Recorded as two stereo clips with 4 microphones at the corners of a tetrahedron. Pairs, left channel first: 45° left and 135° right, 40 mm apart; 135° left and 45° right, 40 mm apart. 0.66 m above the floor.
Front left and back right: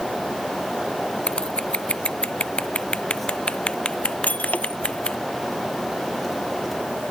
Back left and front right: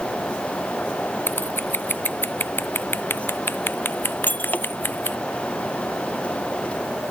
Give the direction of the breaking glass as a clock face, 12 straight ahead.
9 o'clock.